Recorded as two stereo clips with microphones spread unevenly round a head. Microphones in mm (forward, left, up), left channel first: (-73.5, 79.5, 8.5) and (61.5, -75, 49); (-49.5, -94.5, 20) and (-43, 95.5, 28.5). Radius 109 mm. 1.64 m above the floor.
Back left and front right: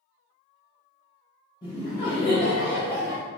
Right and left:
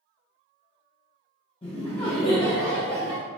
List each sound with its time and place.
1.6 s laughter: 150° right, 0.7 m